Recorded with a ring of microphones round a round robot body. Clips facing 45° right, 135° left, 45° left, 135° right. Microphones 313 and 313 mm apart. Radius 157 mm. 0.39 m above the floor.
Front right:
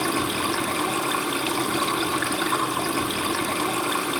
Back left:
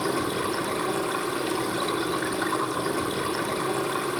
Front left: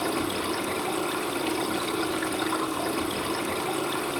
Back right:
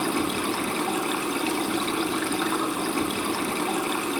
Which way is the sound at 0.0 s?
80° right.